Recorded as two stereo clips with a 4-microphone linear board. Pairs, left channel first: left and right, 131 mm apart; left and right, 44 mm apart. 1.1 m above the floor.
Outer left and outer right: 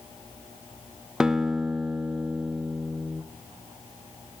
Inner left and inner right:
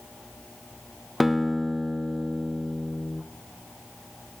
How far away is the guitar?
About 0.6 m.